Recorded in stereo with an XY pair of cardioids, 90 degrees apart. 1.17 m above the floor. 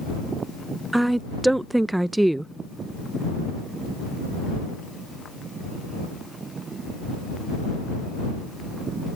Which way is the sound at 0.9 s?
15° right.